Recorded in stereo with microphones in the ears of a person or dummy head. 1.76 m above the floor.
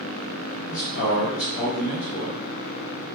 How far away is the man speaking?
About 0.9 m.